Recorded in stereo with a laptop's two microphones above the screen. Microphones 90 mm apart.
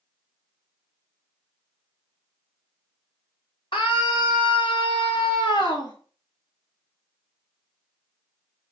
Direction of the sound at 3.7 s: 70° left (ahead or behind).